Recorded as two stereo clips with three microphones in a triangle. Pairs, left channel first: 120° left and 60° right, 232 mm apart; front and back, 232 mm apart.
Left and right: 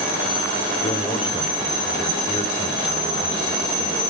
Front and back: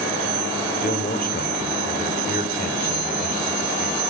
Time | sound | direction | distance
0.8 | a man speaking | 50° left | 3 m